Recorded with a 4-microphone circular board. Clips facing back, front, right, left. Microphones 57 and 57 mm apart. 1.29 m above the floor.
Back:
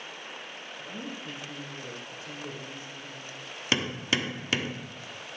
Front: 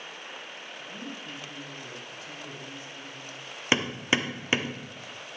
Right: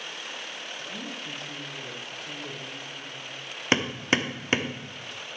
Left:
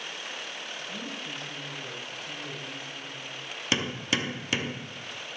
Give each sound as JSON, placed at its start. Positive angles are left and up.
{"t": 0.8, "sound": "a woman speaking", "azimuth_deg": -120, "distance_m": 3.5}
{"t": 3.7, "sound": "hammering", "azimuth_deg": -55, "distance_m": 0.9}